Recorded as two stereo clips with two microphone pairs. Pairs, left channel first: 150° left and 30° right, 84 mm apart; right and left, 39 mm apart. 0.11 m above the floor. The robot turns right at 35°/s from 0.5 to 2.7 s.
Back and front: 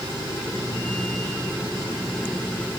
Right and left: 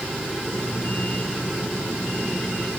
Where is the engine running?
Straight ahead; by 2.8 s 75° left.